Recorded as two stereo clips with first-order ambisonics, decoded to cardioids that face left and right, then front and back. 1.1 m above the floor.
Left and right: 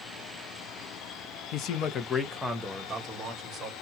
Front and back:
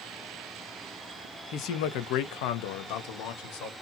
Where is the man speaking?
50° left, 0.8 m; by 3.7 s 25° right, 1.3 m.